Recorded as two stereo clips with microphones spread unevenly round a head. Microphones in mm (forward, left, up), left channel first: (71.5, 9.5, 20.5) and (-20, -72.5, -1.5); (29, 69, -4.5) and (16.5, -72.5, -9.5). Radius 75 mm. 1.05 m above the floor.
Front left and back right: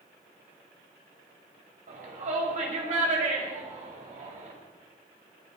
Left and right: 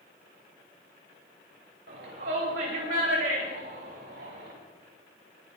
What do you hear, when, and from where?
1.9 s a shout: 120° right, 6.5 m; by 4.5 s 110° right, 10 m